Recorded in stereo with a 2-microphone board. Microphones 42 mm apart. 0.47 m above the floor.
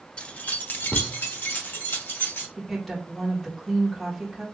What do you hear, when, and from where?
0.2 s keys jangling: 25° left (ahead or behind), 0.6 m; by 2.5 s 60° left (ahead or behind), 1.9 m
2.6 s a woman speaking: centre (ahead or behind), 1.3 m